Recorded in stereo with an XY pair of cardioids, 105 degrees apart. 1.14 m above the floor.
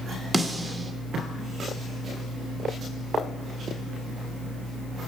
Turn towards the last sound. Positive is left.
turn(degrees=-5)